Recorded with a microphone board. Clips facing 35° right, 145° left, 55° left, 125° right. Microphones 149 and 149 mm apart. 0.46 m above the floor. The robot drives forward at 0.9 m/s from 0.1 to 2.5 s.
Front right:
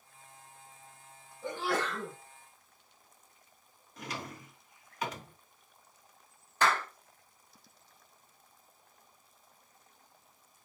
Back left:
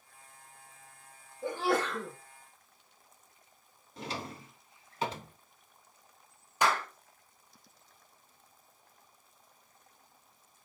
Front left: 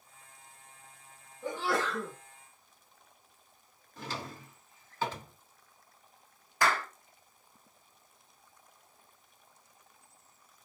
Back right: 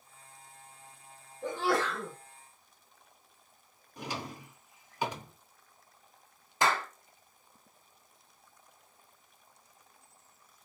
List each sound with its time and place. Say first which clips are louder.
1.4 s a sneeze: back left 3 dB, back right 2 dB; 170° right, 1.8 m
4.0 s a drawer: back left 2 dB, back right 1 dB; 175° left, 0.5 m
6.6 s a clap: even, back right 1 dB; 155° right, 0.6 m